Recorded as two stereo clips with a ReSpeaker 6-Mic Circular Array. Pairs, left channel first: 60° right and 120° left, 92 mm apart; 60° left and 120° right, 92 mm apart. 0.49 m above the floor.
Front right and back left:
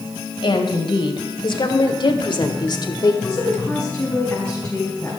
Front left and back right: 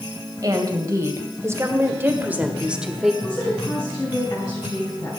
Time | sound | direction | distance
0.4 | a woman speaking | 70° right | 2.5 m
3.2 | a woman speaking | 15° left | 4.5 m